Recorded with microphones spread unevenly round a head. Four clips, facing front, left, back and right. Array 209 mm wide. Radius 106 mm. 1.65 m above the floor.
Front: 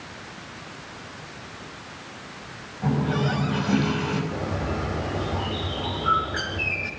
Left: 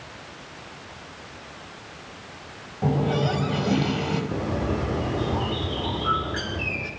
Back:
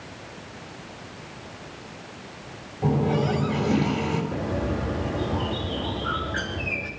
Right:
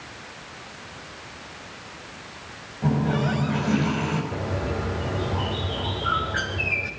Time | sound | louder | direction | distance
2.8 | a running tap | even, back 2 dB | 125° left | 5.5 m
4.3 | a bird | left 2 dB, back 1 dB | 100° left | 6.5 m